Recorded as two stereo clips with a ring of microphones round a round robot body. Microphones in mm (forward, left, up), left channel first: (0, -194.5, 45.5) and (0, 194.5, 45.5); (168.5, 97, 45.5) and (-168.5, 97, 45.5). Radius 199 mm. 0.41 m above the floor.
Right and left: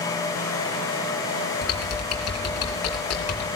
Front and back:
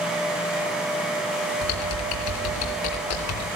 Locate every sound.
1.6 s typing on a keyboard: 35° right, 3.5 m